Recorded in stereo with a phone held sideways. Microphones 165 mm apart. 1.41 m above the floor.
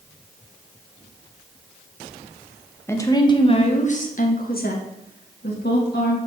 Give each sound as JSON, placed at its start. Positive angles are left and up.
{"t": 2.9, "sound": "a woman speaking", "side_deg": 15, "distance_m": 1.1}